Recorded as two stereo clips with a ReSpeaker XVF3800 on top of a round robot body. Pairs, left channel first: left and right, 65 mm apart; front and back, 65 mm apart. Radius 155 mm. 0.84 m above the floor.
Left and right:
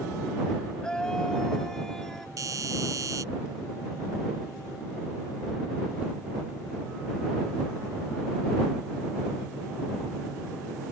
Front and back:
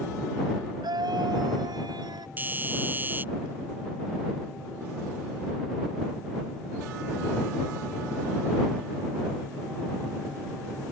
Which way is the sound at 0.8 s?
170° left.